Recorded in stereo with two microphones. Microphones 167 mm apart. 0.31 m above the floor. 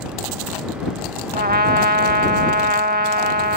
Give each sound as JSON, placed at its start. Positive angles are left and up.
{"t": 1.3, "sound": "a trumpet", "side_deg": -65}